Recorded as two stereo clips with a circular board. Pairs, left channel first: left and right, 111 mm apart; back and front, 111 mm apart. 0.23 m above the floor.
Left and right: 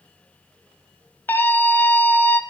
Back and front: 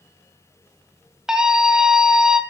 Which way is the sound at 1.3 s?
70° left.